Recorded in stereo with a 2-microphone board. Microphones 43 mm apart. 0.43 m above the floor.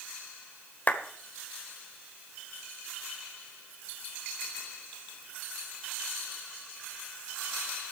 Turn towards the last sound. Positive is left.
turn(degrees=35)  # may be behind; listen again after turning